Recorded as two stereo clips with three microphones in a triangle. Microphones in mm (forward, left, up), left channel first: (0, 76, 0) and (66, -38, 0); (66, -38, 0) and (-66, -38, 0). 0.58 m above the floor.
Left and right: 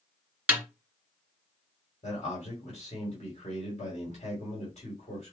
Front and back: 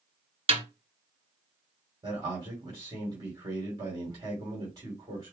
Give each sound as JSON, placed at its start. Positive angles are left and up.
{"t": 0.5, "sound": "a snare drum", "azimuth_deg": -140, "distance_m": 1.7}
{"t": 2.0, "sound": "a man speaking", "azimuth_deg": 130, "distance_m": 2.5}